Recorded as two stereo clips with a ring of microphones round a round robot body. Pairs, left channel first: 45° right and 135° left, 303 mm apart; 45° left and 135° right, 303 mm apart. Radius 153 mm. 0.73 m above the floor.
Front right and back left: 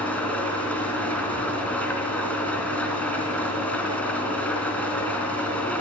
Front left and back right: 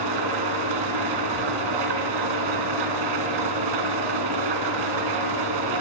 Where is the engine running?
130° right, 2.5 m.